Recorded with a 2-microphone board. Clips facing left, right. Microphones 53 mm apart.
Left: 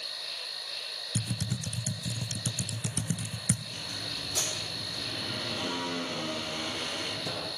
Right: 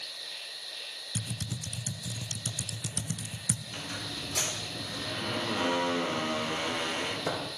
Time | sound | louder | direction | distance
0.0 | an insect | left 2 dB | 75° left (ahead or behind) | 9 m
1.1 | typing on a keyboard | left 4 dB | 25° left (ahead or behind) | 2.5 m
3.7 | a squeak | right 1 dB | 40° right (ahead or behind) | 4 m